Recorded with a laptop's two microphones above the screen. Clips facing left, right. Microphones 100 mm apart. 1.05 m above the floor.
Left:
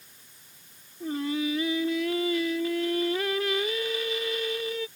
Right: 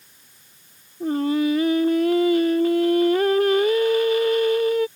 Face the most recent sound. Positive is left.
turn(degrees=-50)  # may be behind; listen again after turning